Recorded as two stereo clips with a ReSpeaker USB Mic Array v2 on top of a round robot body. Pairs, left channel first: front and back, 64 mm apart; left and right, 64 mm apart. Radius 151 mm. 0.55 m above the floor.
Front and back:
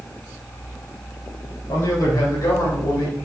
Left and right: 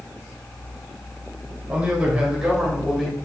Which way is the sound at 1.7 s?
20° right.